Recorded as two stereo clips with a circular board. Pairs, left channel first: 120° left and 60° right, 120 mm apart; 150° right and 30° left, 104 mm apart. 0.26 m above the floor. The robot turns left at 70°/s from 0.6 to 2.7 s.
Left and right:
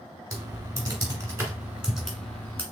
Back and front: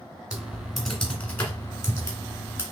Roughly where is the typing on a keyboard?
Ahead right.